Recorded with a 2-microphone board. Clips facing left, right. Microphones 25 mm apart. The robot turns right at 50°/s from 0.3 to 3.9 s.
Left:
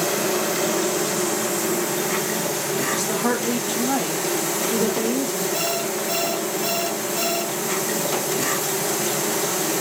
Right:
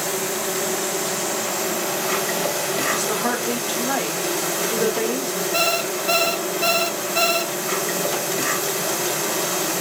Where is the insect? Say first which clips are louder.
Left 3 dB; 145° left, 1.9 m; by 9.8 s 35° right, 1.9 m.